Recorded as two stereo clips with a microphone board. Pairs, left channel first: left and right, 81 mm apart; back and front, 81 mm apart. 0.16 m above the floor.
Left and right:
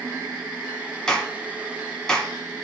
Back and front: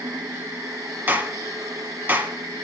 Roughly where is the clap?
Ahead left.